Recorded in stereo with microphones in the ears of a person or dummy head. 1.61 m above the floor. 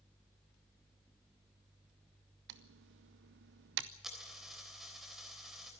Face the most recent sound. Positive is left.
turn(degrees=-5)  # may be behind; listen again after turning